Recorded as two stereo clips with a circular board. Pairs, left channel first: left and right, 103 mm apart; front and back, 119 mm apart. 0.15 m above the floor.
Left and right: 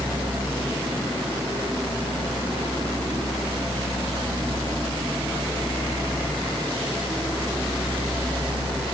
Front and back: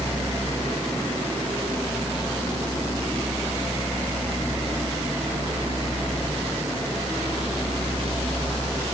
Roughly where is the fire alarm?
No fire alarm in this recording.